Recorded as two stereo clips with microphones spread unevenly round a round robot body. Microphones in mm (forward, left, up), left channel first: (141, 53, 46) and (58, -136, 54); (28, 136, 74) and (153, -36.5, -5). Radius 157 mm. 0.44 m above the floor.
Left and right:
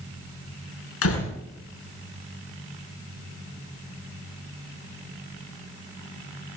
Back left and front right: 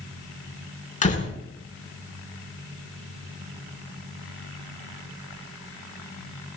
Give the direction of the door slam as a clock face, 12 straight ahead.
10 o'clock.